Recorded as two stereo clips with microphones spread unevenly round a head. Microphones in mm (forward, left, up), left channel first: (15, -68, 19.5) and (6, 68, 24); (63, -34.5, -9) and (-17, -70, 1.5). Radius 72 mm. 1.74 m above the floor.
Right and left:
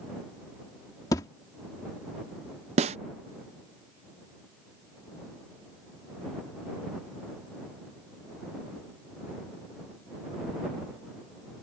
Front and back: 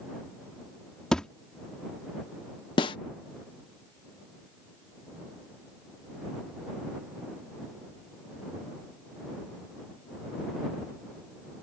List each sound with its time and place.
1.1 s a thud: 65° right
2.8 s a snare drum: 60° left